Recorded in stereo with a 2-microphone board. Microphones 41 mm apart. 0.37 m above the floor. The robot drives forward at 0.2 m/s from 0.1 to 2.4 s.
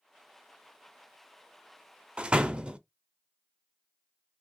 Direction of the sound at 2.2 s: 30° right (ahead or behind).